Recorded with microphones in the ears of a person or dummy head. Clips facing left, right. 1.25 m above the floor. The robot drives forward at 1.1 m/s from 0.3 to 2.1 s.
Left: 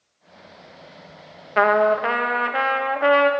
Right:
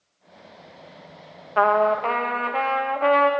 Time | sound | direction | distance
1.6 | a trumpet | 25° left (ahead or behind) | 0.5 m